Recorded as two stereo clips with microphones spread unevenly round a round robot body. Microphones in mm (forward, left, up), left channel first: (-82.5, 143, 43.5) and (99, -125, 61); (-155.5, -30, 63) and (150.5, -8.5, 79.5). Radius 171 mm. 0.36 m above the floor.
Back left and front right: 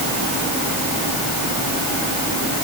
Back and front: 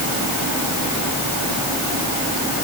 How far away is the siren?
I don't hear a siren.